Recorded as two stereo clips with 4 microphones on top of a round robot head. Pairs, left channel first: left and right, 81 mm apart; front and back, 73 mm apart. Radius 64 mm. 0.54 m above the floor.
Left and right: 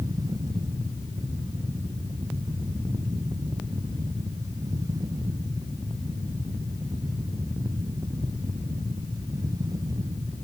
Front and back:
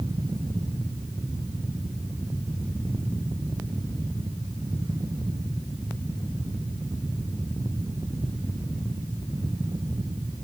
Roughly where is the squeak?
No squeak in this recording.